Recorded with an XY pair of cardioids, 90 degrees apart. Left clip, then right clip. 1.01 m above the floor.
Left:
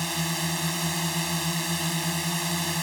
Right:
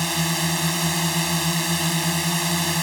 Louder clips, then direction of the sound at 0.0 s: Right 5 dB; 35° right.